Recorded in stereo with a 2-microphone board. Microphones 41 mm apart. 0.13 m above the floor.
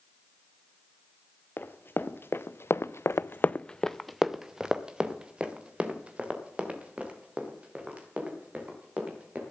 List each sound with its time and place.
1.6 s running footsteps: 55° left (ahead or behind), 1.6 m; by 9.4 s 30° right (ahead or behind), 5 m